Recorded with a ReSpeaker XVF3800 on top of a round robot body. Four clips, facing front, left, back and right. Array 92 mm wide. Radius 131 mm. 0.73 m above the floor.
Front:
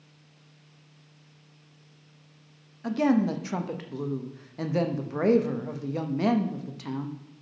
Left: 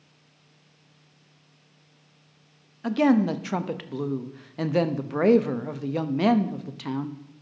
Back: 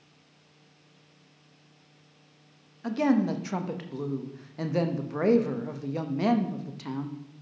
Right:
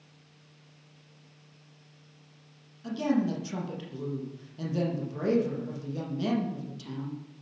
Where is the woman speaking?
90° left, 0.7 m.